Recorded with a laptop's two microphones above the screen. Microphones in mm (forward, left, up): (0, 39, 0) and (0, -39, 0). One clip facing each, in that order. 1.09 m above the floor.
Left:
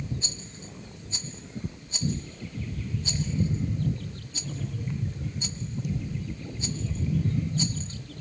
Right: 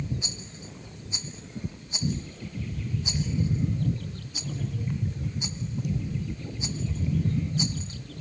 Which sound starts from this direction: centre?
A rattle, at 0.2 s.